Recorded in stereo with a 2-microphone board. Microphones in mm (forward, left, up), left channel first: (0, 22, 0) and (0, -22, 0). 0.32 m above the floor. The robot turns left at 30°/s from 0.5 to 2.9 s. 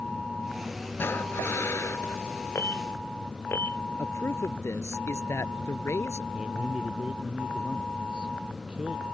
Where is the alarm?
75° left (ahead or behind); by 3.8 s 65° left (ahead or behind).